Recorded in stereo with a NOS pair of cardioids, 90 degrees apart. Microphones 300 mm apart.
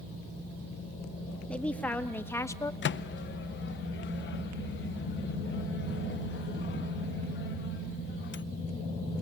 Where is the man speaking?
5° left, 2.5 m; by 2.7 s 10° left, 1.2 m.